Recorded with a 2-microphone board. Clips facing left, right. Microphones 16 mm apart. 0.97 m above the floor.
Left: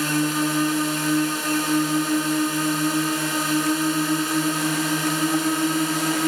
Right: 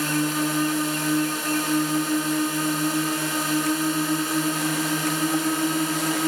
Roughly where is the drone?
Centre.